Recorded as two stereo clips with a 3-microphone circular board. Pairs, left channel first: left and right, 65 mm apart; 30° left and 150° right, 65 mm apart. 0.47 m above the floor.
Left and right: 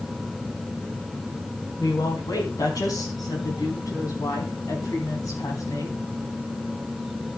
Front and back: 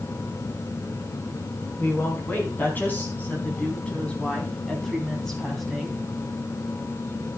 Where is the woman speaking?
85° left, 4.5 m; by 6.0 s 120° left, 3.5 m.